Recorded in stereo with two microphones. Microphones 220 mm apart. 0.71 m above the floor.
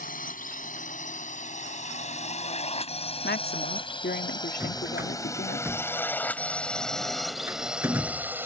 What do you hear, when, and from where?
0.0 s a drone: 40° left (ahead or behind); by 8.4 s 10° right (ahead or behind)
3.2 s a woman speaking: 50° left (ahead or behind)
4.6 s a drawer: 10° right (ahead or behind)